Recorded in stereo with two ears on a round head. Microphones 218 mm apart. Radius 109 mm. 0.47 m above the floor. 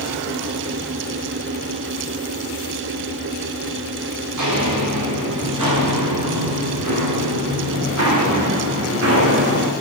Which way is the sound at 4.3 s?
85° right.